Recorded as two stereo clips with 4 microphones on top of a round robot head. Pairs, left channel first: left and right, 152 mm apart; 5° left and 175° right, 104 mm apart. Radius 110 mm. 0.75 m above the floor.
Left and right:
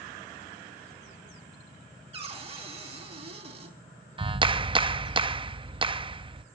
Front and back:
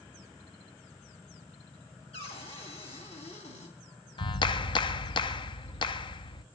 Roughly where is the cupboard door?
Ahead right.